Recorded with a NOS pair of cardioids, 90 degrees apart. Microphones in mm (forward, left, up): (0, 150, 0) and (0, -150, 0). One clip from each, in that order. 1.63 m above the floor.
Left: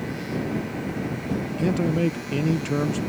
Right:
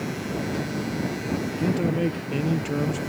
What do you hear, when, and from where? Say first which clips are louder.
1.6 s a man speaking: left 2 dB; 15° left